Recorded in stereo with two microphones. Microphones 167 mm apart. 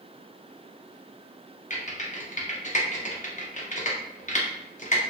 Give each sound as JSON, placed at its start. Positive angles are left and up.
{"t": 1.7, "sound": "typing on a keyboard", "side_deg": 45, "distance_m": 0.7}